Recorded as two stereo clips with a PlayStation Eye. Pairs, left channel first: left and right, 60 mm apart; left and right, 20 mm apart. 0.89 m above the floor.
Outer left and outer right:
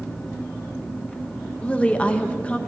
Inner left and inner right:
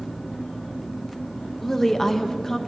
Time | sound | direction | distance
1.6 | a woman speaking | 20° left (ahead or behind) | 0.5 m